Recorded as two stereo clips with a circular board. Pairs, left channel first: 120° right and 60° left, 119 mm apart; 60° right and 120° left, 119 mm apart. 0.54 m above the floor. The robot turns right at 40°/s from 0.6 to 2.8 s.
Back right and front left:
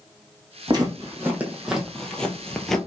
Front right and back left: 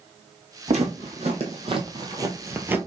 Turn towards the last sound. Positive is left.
turn(degrees=160)